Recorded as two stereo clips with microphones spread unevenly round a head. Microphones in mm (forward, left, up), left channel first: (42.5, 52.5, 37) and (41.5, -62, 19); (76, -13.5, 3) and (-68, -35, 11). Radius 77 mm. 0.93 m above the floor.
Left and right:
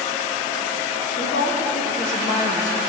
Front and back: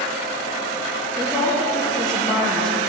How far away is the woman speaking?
About 1.1 m.